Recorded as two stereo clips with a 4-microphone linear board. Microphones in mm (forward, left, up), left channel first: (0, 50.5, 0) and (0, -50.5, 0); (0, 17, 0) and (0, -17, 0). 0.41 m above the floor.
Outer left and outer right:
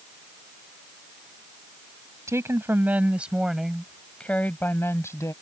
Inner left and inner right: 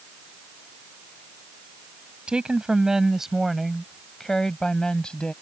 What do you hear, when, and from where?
2.3 s a woman speaking: 30° right (ahead or behind); by 5.3 s 30° left (ahead or behind)